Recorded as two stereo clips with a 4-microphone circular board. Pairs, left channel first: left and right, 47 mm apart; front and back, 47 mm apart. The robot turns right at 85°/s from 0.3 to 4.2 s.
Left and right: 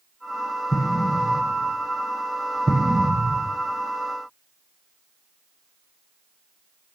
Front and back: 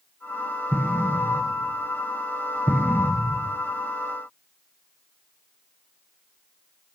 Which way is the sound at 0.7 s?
75° left.